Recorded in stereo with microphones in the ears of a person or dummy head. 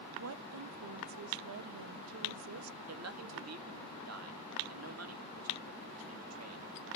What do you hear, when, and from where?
0.2 s a woman speaking: 85° right, 0.8 m
2.9 s a man speaking: 80° right, 1.8 m